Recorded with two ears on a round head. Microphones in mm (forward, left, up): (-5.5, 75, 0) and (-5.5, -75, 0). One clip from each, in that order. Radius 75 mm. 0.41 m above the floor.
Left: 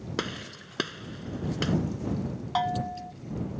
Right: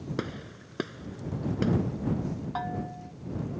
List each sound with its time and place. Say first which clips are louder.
0.2 s a gunshot: left 5 dB; 60° left (ahead or behind)
2.5 s a bell: left 8 dB; 75° left (ahead or behind)